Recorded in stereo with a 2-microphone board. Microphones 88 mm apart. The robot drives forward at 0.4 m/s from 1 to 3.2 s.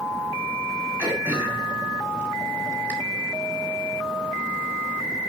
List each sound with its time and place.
1.0 s throat clearing: 25° right (ahead or behind), 4 m; by 2.9 s 20° right (ahead or behind), 4.5 m